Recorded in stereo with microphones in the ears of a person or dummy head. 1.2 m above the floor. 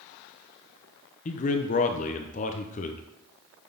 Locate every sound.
1.2 s a man speaking: 35° left (ahead or behind), 0.6 m